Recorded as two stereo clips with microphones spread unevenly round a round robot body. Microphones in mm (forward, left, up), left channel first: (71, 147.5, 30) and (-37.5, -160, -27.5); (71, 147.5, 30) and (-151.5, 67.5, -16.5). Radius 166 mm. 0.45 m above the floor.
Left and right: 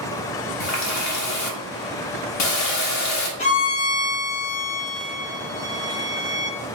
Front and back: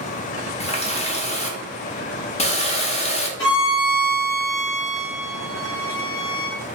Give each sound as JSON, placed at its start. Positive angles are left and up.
{"t": 0.6, "sound": "a running tap", "azimuth_deg": 85, "distance_m": 0.6}
{"t": 3.4, "sound": "a violin", "azimuth_deg": -5, "distance_m": 0.6}